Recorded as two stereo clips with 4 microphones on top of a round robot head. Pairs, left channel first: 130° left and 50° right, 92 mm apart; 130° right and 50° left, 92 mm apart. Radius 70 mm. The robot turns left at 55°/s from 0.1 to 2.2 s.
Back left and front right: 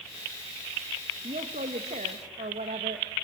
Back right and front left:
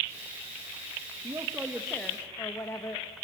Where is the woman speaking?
10° right, 1.7 m; by 3.1 s 65° right, 1.7 m.